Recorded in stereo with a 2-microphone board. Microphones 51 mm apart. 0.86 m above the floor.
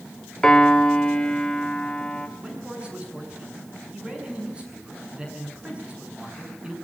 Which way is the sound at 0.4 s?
10° left (ahead or behind).